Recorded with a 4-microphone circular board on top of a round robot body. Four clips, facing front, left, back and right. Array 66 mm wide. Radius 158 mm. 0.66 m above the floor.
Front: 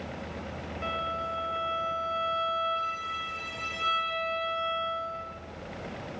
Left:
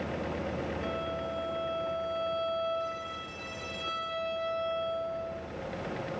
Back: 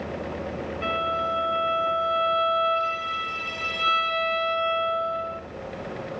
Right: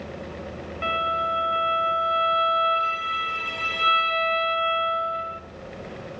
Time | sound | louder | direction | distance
0.8 | a violin | right 10 dB, back 6 dB | 105° right | 1.8 m